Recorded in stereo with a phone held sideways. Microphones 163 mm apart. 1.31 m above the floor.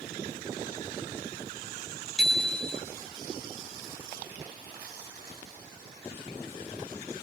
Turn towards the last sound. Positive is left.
turn(degrees=5)  # may be behind; listen again after turning